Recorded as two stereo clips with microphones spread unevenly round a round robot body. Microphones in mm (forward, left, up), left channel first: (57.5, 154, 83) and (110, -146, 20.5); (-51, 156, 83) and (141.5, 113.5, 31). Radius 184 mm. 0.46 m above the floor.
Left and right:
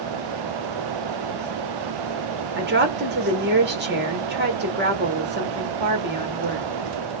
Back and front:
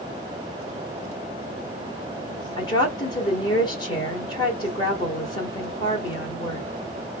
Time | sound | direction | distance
2.6 | a woman speaking | 115° right | 1.3 m